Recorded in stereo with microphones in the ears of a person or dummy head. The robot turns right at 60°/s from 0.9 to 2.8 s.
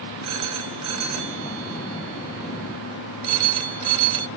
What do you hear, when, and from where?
0.2 s a phone ringing: 35° right (ahead or behind), 1.5 m; by 4.3 s 30° right (ahead or behind), 1.5 m